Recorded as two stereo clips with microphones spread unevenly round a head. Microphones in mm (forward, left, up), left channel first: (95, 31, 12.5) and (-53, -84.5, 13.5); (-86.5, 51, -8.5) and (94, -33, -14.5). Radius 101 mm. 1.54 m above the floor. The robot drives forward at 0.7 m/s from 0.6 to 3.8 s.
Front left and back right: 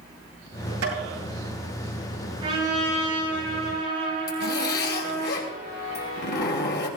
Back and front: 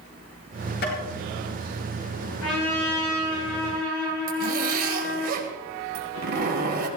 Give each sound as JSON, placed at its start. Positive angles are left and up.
{"t": 0.8, "sound": "tapping", "azimuth_deg": -165, "distance_m": 8.0}
{"t": 2.4, "sound": "a trumpet", "azimuth_deg": 150, "distance_m": 9.5}
{"t": 4.3, "sound": "a zipper", "azimuth_deg": 15, "distance_m": 2.5}